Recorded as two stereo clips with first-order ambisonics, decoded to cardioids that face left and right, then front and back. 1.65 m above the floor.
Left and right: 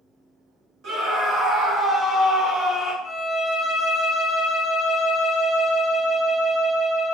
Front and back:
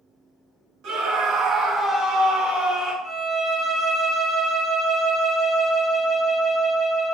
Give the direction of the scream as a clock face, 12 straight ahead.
5 o'clock.